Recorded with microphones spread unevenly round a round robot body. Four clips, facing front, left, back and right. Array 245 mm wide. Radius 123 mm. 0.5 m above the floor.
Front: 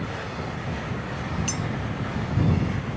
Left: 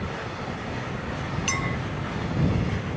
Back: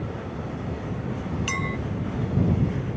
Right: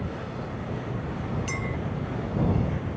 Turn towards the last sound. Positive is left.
turn(degrees=130)